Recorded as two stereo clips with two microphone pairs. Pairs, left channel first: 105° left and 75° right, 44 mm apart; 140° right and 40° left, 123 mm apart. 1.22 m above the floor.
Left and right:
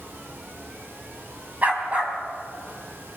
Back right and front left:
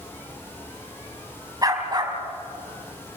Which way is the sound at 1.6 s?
20° right.